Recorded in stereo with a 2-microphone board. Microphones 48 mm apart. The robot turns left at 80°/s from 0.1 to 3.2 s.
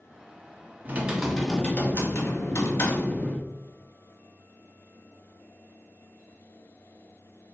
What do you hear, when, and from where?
0.8 s typing on a keyboard: 140° right, 1.2 m; by 3.5 s 35° left, 1.2 m